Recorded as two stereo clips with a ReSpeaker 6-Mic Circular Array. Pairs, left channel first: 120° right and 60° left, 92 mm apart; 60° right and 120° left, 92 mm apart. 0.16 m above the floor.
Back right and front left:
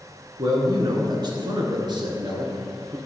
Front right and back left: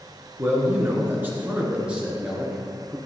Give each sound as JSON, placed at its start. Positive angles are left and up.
{"t": 0.4, "sound": "a man speaking", "azimuth_deg": 70, "distance_m": 1.7}